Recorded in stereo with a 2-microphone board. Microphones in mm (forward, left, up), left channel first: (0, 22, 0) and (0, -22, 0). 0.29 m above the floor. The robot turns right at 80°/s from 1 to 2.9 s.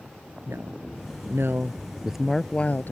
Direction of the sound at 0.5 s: 75° right (ahead or behind).